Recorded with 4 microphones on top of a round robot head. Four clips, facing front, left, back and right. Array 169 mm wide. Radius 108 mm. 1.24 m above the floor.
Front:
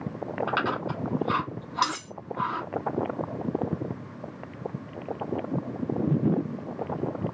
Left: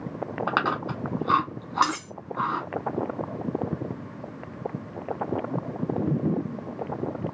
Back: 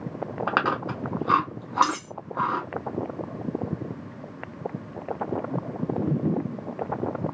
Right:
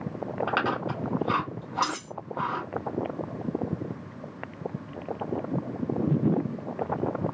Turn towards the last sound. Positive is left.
turn(degrees=70)